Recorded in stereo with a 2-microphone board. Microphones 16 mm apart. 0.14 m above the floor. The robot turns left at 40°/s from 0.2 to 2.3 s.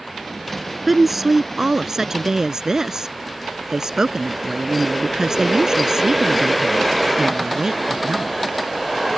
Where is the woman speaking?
5° right; by 8.4 s 65° right.